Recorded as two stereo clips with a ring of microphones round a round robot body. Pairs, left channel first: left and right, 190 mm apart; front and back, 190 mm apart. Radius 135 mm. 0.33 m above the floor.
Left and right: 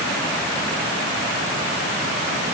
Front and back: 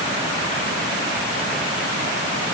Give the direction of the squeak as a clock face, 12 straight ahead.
No squeak in this recording.